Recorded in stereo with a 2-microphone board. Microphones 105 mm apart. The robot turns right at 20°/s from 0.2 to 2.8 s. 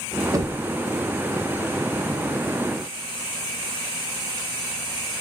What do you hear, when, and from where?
0.3 s knocking: 35° right (ahead or behind), 0.6 m